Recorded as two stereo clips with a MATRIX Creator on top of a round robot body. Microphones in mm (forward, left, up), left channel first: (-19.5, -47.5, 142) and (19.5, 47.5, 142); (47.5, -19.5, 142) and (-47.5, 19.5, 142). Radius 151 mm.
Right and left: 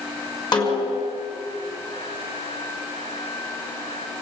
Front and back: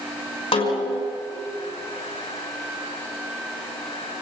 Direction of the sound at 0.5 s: 65° right.